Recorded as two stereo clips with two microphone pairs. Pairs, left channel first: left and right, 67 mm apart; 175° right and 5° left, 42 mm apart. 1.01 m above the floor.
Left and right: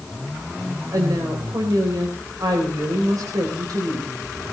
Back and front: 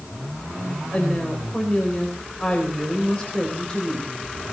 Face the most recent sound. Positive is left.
turn(degrees=-110)